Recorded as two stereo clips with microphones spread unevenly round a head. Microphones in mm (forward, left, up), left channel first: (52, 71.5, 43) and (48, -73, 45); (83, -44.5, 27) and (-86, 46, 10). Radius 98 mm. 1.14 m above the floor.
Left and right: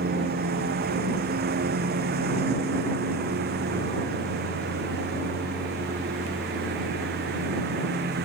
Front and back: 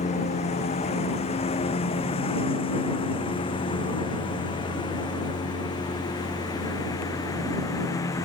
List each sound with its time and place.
0.0 s a lawn mower: 85° right; by 8.2 s 105° right